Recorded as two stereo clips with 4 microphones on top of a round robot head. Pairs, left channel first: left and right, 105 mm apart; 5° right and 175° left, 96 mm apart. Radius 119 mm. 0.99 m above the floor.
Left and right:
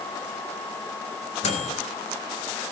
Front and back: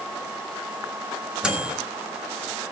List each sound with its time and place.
1.4 s a microwave: 90° left, 4 m